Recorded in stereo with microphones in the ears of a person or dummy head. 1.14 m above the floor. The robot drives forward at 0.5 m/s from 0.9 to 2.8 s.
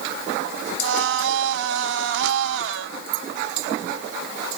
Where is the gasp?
No gasp in this recording.